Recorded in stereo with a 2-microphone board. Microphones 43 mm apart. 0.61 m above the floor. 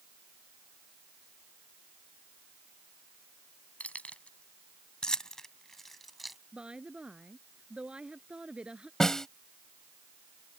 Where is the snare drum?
10° left (ahead or behind).